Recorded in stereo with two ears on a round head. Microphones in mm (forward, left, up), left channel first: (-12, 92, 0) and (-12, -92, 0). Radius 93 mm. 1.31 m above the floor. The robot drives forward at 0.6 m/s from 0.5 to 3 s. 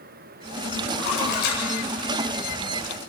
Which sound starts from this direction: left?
A splash, at 1.0 s.